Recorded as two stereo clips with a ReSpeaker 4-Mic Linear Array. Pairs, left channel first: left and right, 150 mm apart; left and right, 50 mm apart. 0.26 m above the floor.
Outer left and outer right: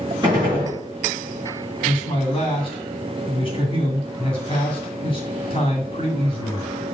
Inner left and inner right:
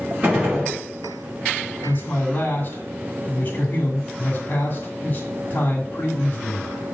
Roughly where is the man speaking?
Left.